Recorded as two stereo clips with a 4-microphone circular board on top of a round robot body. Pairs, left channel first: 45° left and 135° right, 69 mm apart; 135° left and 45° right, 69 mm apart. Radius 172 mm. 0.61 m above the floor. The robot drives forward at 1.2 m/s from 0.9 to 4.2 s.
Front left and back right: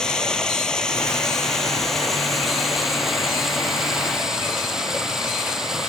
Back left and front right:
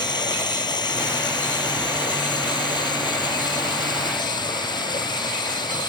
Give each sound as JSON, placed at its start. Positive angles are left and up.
{"t": 0.0, "sound": "running water", "azimuth_deg": 125}